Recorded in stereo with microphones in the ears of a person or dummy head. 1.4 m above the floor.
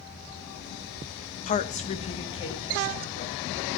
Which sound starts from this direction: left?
A woman speaking, at 1.5 s.